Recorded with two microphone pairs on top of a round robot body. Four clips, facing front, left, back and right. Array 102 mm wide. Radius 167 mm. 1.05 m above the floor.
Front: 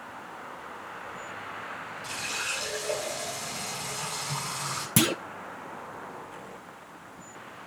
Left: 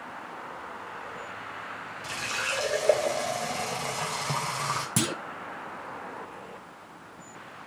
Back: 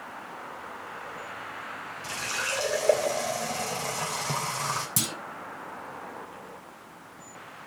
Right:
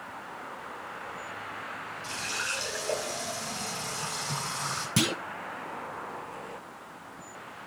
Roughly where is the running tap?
Behind left.